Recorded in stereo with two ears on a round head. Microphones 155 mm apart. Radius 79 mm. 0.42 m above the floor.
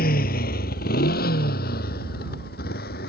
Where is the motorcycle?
60° left (ahead or behind).